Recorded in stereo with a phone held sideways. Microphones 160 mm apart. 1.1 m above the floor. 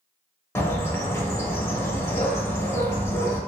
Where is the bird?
15° left (ahead or behind), 0.9 m.